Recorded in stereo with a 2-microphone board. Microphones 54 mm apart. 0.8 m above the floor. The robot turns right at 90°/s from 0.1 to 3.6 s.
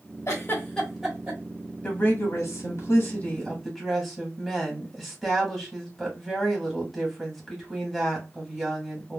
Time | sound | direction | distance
0.3 | a giggle | 55° left (ahead or behind) | 1.2 m
1.8 | a woman speaking | 25° left | 1.7 m